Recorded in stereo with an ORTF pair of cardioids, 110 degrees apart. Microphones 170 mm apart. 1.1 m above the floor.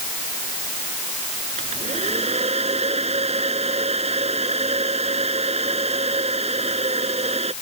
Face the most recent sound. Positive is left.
turn(degrees=-40)